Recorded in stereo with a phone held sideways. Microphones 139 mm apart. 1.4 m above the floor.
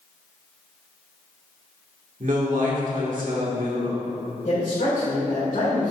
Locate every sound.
2.2 s a man speaking: 70° right (ahead or behind), 1.7 m
4.4 s a man speaking: 65° left (ahead or behind), 2.5 m